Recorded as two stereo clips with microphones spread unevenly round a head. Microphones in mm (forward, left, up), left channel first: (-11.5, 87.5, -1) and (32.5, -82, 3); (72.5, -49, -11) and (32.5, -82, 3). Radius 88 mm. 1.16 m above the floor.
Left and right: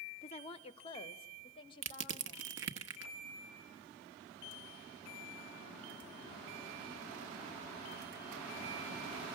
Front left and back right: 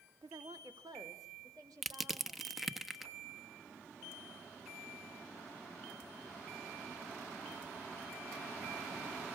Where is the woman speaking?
160° left, 0.7 m; by 2.6 s 170° left, 2.5 m.